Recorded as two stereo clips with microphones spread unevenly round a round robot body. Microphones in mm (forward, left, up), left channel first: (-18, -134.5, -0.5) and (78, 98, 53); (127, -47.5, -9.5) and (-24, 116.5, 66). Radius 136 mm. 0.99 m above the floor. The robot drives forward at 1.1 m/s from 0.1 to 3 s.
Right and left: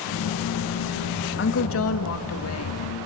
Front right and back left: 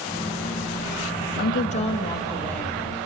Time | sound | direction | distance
1.4 | a woman speaking | 85° right | 1.5 m